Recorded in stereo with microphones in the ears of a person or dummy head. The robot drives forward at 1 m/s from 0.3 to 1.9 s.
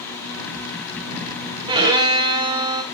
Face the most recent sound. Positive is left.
turn(degrees=-20)  # may be behind; listen again after turning